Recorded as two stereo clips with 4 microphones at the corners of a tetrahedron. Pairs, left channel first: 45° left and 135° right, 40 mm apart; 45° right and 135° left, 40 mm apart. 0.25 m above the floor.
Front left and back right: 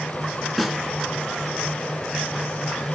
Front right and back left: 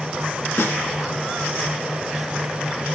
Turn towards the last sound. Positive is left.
turn(degrees=-40)